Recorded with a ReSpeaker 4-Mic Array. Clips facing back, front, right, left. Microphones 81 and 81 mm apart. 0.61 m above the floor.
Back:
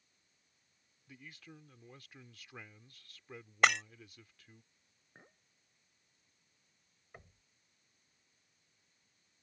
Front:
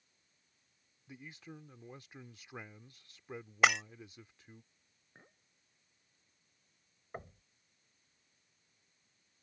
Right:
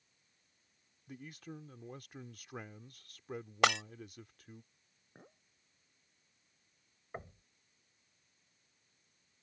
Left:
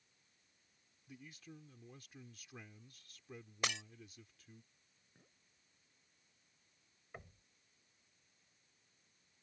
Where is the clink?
95° right.